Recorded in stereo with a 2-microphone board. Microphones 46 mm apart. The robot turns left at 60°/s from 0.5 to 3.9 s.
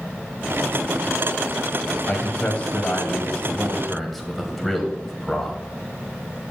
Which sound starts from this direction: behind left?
A man speaking, at 2.1 s.